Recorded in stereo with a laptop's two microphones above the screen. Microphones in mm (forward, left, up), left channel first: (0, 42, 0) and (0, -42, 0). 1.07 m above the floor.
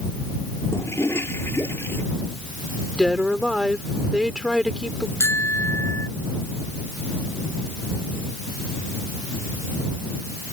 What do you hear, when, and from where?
0.7 s a toilet flushing: 30° left (ahead or behind)
3.0 s a woman speaking: 5° right (ahead or behind)
5.2 s a bicycle bell: 30° left (ahead or behind)